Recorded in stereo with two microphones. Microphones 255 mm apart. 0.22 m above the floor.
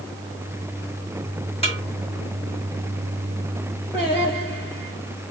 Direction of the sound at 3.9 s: 40° left (ahead or behind).